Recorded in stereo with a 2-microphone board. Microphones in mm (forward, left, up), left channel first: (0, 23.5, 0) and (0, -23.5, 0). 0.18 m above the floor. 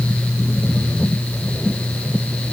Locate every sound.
Only background noise.